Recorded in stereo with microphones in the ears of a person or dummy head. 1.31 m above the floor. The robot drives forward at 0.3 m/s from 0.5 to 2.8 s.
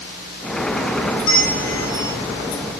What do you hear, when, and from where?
1.2 s a bell: 65° left (ahead or behind), 6.5 m; by 2.1 s 60° left (ahead or behind), 7 m